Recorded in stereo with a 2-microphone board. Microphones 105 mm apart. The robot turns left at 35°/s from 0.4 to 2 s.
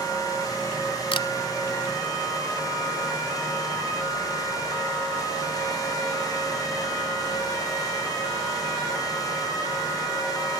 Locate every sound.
1.1 s a camera shutter: 50° left (ahead or behind), 0.9 m; by 1.3 s 55° left (ahead or behind), 0.9 m